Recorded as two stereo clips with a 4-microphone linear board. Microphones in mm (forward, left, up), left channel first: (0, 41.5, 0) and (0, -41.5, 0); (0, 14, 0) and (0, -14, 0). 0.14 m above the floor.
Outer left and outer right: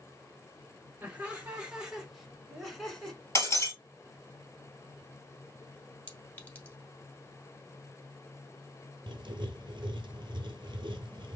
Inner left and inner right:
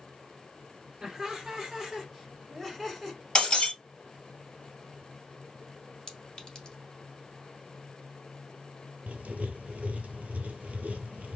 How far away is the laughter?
About 1.2 m.